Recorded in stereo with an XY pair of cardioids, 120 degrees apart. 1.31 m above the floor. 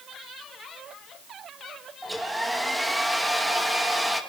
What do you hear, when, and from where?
2.0 s a hair dryer: 5° right, 2 m